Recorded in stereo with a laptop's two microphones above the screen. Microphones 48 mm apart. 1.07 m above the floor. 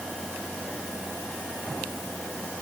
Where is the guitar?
No guitar in this recording.